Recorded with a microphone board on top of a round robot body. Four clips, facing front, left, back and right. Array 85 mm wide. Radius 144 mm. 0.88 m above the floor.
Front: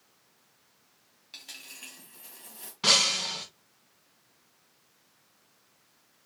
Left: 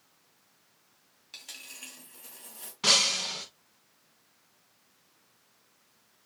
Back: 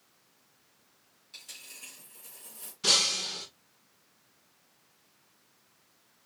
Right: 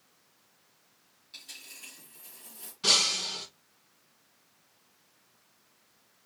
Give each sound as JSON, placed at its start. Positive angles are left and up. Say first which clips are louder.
{"t": 1.3, "sound": "a dropped coin", "louder": "left 3 dB, front 3 dB", "azimuth_deg": 50, "distance_m": 1.7}
{"t": 2.8, "sound": "breaking glass", "louder": "left 2 dB, front 4 dB", "azimuth_deg": 40, "distance_m": 1.1}